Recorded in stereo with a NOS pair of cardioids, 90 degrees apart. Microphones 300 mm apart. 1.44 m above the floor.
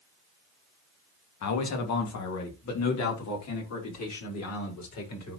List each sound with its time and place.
1.4 s a man speaking: 65° left, 2 m; by 5.4 s 60° left, 5.5 m